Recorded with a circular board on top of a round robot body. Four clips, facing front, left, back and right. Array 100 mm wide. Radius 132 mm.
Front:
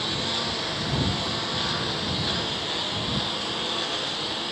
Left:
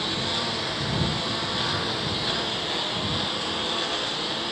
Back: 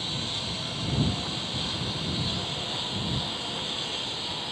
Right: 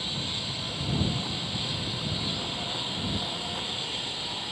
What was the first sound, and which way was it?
A lawn mower, 55° left.